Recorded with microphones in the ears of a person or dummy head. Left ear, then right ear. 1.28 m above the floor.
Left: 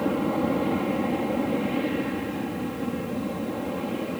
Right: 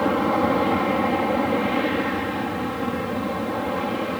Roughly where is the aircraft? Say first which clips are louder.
Right 5 dB; right.